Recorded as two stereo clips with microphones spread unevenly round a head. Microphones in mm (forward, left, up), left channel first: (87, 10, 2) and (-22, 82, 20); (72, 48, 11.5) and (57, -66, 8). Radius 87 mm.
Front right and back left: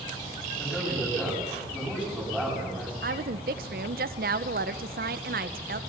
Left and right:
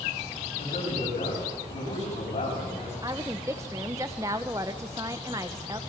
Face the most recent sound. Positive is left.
turn(degrees=-175)